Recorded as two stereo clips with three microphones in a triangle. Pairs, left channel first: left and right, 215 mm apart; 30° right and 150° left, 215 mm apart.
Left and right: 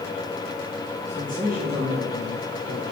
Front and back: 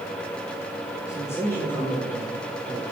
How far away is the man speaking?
About 1.2 m.